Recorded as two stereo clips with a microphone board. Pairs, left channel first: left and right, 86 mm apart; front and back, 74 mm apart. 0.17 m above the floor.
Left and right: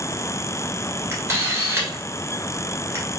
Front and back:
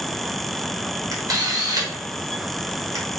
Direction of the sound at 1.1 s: 150° right.